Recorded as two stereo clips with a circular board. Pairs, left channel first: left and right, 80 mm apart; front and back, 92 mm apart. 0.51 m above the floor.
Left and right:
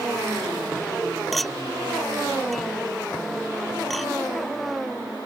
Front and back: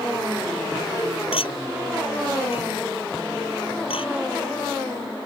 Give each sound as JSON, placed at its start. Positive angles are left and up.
{"t": 1.3, "sound": "a clink", "azimuth_deg": 0}